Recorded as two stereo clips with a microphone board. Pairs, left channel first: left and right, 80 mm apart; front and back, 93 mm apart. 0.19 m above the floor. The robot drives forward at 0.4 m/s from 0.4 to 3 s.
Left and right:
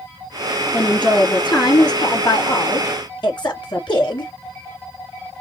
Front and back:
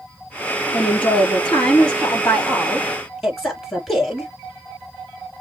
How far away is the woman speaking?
About 4 m.